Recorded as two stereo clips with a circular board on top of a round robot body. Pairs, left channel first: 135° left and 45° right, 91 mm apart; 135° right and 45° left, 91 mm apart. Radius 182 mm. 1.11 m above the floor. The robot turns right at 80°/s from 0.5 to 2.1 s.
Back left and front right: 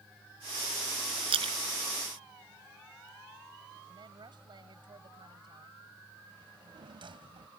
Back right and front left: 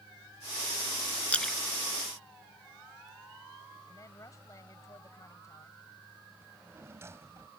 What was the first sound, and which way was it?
A splash, 60° right.